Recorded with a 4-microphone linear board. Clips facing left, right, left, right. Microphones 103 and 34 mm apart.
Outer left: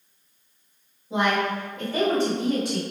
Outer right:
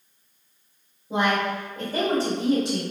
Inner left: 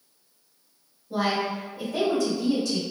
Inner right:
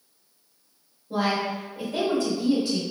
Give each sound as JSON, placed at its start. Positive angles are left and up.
{"t": 1.1, "sound": "a woman speaking", "side_deg": -50, "distance_m": 1.6}